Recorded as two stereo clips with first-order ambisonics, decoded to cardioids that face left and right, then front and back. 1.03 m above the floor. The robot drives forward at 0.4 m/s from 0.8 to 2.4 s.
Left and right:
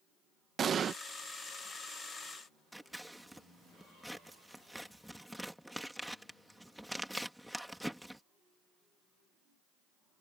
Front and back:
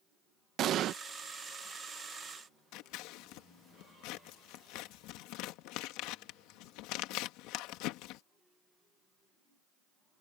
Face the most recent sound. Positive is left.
turn(degrees=0)